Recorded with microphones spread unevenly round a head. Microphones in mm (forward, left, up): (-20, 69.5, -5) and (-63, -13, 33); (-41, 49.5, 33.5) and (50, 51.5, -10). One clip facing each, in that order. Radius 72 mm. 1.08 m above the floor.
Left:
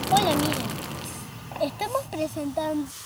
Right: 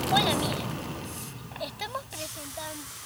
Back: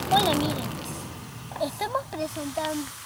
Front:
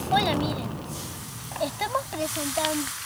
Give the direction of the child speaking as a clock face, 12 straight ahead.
8 o'clock.